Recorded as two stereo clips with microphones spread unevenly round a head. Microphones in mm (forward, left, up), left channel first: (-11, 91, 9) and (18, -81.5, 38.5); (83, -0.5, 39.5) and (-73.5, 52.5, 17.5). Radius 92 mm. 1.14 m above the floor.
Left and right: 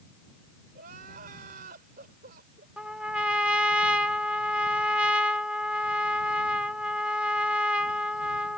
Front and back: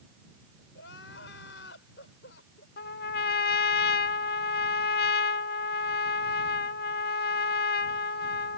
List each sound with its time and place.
0.8 s crying: 40° right
2.8 s a trumpet: 5° left